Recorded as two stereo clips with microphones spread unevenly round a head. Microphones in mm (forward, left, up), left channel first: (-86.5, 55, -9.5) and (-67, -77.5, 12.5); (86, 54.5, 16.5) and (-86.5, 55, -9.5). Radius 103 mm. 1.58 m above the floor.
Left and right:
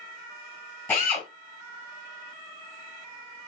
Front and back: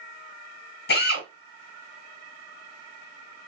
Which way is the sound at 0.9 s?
15° left.